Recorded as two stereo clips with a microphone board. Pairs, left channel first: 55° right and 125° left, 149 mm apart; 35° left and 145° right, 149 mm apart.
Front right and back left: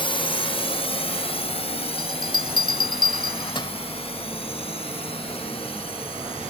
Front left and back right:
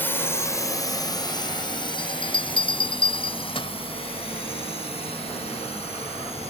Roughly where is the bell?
Ahead.